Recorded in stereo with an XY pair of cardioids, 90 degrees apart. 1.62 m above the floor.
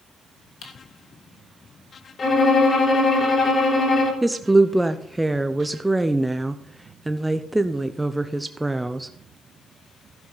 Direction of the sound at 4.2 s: 10° right.